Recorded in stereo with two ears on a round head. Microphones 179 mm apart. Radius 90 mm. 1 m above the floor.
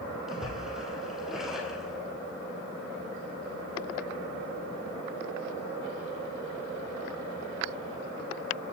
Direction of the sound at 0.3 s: Centre (ahead or behind).